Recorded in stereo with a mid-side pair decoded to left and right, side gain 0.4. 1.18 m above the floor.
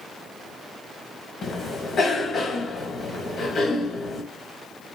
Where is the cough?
60° left, 1.6 m.